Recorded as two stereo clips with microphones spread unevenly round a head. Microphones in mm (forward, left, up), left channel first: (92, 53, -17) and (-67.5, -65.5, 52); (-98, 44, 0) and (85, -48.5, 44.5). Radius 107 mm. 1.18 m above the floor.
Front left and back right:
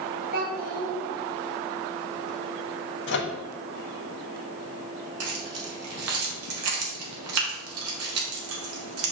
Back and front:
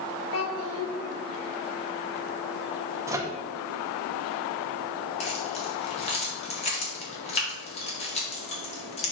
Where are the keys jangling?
145° right, 1.6 m.